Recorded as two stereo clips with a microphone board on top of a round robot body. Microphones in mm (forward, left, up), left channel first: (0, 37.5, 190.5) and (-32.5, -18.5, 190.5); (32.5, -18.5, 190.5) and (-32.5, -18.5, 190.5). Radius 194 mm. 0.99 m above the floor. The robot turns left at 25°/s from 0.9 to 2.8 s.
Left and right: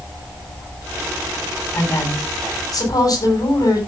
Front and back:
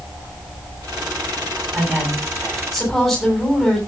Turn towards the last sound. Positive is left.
turn(degrees=90)